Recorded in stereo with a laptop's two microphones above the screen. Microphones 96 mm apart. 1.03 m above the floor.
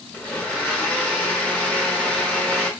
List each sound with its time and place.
0.1 s a blender: 15° left (ahead or behind), 1.6 m